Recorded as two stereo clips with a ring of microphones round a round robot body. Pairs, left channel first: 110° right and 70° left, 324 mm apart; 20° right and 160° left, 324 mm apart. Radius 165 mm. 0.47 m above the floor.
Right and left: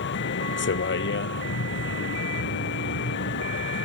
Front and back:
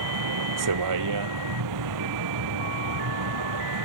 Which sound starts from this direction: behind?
A vehicle, at 0.0 s.